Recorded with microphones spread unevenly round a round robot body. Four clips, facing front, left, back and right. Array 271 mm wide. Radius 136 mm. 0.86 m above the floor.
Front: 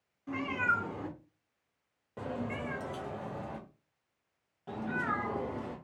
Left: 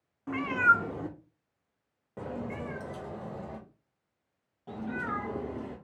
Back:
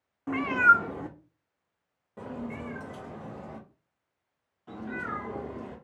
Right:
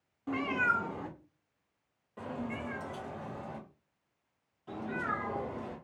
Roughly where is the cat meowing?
Behind.